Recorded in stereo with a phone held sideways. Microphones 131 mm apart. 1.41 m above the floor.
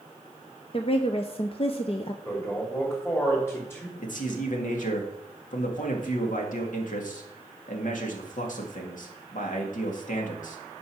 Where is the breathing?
I don't hear breathing.